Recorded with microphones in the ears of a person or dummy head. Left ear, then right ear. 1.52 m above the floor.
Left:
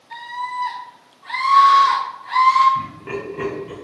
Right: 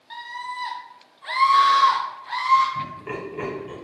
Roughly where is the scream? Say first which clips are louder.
Left 5 dB; right.